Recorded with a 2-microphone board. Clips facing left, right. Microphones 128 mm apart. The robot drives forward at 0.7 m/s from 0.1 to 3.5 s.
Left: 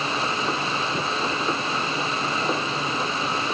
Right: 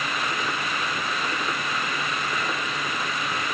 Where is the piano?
No piano in this recording.